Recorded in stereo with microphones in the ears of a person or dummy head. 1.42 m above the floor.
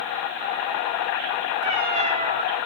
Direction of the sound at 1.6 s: 25° right (ahead or behind).